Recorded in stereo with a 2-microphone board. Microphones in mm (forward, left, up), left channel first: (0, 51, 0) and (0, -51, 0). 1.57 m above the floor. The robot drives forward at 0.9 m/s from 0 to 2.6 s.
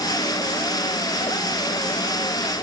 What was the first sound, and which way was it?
Only background noise.